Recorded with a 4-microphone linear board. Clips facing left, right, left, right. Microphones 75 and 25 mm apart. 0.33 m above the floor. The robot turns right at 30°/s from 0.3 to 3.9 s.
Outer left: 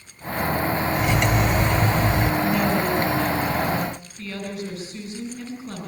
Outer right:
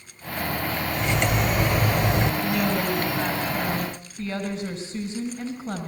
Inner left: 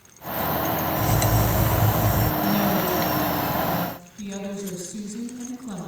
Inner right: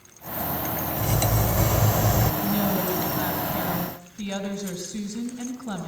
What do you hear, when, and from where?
1.0 s cutlery clinking: 170° left, 0.8 m; by 2.3 s 150° right, 0.8 m
2.4 s a woman speaking: 165° left, 3.5 m; by 5.9 s 150° right, 3.5 m